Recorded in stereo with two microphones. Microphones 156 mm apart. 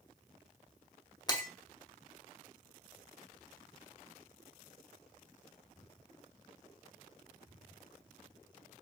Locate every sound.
1.3 s breaking glass: 25° left (ahead or behind), 0.7 m